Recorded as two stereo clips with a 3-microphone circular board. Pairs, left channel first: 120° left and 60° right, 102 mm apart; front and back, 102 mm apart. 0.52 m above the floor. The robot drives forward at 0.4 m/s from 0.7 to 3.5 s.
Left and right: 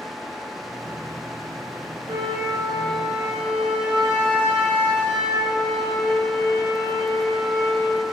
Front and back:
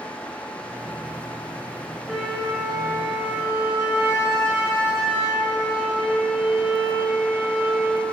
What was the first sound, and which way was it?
A flute, 95° right.